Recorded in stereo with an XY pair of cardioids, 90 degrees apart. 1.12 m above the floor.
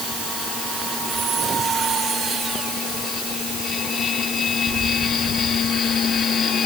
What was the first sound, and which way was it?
Only background noise.